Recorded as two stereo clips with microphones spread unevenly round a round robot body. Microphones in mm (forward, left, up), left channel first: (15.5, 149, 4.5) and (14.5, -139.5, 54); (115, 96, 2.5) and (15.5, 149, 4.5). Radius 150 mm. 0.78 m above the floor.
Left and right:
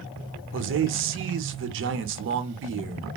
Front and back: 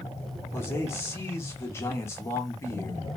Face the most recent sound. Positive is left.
turn(degrees=-70)